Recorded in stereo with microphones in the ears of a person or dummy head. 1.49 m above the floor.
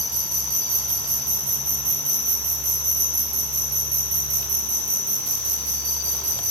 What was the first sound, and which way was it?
An insect, 5° right (ahead or behind).